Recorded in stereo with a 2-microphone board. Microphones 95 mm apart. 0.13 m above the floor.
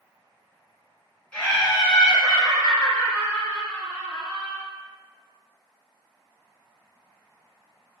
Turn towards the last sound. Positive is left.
turn(degrees=15)  # may be behind; listen again after turning